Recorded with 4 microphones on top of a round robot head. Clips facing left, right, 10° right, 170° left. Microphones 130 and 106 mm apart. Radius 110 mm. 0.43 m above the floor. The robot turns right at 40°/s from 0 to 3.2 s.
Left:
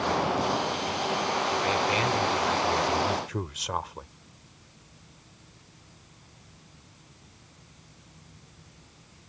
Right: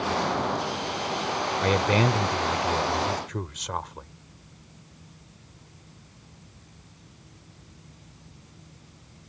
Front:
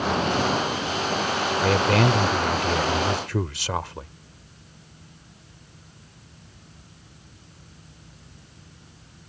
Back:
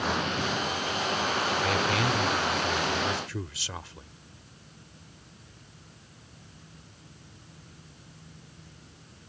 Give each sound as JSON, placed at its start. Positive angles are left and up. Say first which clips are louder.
{"t": 1.6, "sound": "a man speaking", "louder": "right 7 dB, front 10 dB", "azimuth_deg": -60}